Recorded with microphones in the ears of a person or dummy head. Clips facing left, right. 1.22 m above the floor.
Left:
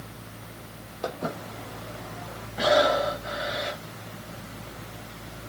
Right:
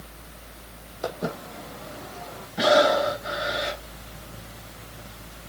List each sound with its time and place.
1.0 s footsteps: 5° right (ahead or behind), 3.5 m; by 2.5 s 35° right (ahead or behind), 3.5 m
2.6 s breathing: 5° right (ahead or behind), 5 m